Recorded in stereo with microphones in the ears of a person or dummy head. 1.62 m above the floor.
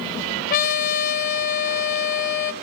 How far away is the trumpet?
About 4 m.